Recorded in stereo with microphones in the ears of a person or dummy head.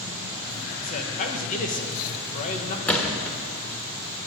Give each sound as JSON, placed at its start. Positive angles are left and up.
{"t": 0.8, "sound": "a man speaking", "side_deg": 40, "distance_m": 1.6}
{"t": 2.9, "sound": "a gunshot", "side_deg": 10, "distance_m": 1.4}